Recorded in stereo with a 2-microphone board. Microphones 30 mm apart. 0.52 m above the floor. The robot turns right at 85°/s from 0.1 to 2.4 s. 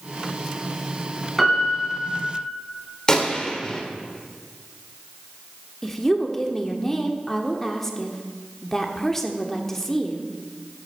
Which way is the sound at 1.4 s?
175° left.